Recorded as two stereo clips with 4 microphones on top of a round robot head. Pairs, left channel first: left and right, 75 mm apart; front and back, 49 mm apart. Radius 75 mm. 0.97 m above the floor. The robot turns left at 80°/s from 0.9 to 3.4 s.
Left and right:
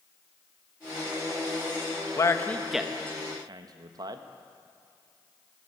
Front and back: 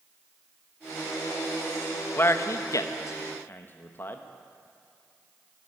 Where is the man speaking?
45° left, 0.9 m; by 4.2 s 55° right, 0.9 m.